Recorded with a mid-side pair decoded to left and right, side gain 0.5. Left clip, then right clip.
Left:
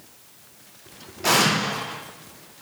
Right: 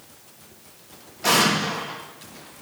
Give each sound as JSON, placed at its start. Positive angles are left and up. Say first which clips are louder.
{"t": 1.2, "sound": "an explosion", "louder": "even", "azimuth_deg": 0, "distance_m": 1.7}